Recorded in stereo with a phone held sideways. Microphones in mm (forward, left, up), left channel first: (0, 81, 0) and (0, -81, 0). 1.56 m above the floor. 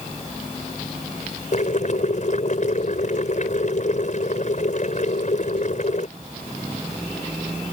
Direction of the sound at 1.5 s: 50° left (ahead or behind).